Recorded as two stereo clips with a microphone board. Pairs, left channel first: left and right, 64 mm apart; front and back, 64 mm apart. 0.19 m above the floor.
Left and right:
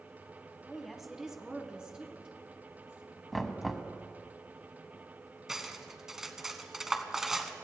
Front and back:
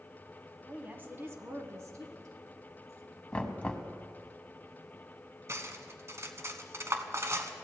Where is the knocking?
5° left, 1.1 m.